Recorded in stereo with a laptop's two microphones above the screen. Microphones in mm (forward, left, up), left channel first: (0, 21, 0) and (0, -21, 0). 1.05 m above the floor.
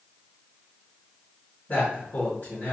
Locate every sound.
1.7 s a man speaking: 50° left (ahead or behind), 1.9 m